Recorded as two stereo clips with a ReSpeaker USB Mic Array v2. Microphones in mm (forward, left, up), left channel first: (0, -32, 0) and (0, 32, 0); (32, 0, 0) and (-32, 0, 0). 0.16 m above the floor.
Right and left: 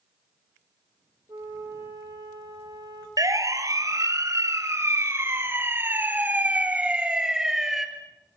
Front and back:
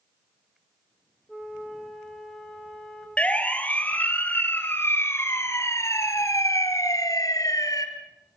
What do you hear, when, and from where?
1.3 s a flute: 90° left, 5.5 m
3.2 s a siren: 70° left, 3.5 m; by 7.9 s 5° left, 3 m